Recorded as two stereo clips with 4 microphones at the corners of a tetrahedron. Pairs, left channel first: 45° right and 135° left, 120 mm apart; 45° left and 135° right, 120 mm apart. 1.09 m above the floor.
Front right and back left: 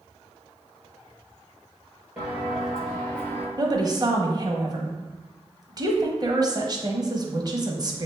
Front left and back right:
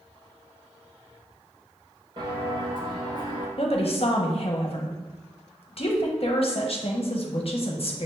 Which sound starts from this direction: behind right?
Footsteps, at 2.2 s.